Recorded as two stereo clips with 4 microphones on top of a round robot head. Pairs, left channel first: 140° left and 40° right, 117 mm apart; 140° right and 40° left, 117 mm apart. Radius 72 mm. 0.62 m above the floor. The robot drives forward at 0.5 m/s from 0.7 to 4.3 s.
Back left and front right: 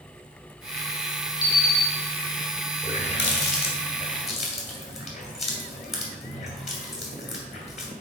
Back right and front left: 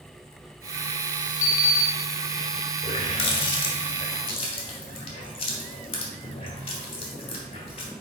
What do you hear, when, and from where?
1.4 s an alarm clock: 165° right, 1.3 m
2.8 s a running tap: 175° left, 1.3 m